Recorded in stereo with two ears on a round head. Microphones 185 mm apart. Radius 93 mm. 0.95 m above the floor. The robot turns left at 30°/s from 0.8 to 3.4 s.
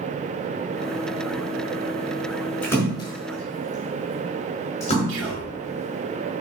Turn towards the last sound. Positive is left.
turn(degrees=-65)  # may be behind; listen again after turning